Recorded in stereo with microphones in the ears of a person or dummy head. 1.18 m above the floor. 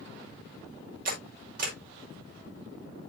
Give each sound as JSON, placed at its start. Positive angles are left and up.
{"t": 1.1, "sound": "a camera shutter", "side_deg": -55, "distance_m": 5.5}